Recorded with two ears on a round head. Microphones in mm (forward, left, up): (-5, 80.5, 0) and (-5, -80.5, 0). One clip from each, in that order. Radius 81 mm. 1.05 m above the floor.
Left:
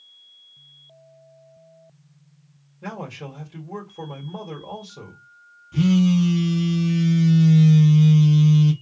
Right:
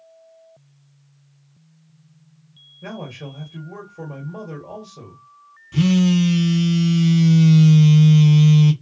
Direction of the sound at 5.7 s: 20° right (ahead or behind).